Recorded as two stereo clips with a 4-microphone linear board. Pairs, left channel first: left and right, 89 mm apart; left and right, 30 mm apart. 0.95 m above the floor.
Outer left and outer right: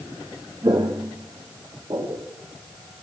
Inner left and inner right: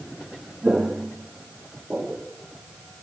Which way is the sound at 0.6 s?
45° right (ahead or behind).